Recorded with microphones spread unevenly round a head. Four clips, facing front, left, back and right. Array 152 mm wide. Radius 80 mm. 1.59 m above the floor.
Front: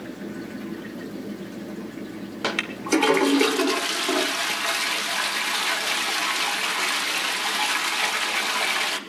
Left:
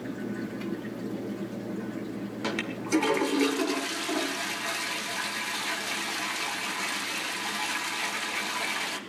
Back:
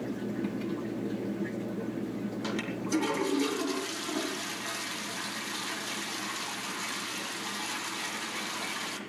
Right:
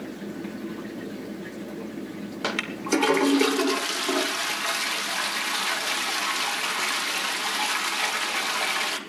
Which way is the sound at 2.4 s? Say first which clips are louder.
Right 4 dB, front 11 dB; 35° right.